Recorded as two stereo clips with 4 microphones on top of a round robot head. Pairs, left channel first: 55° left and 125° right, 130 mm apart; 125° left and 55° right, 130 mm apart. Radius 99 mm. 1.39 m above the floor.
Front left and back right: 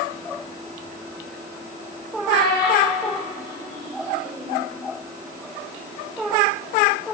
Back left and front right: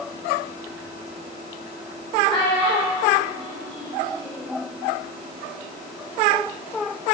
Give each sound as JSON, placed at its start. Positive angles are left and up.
{"t": 2.3, "sound": "a child speaking", "azimuth_deg": 70, "distance_m": 1.0}